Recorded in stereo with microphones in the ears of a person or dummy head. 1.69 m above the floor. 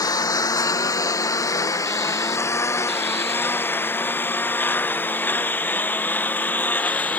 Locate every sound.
0.0 s a lawn mower: 15° left (ahead or behind); by 7.2 s 5° left (ahead or behind)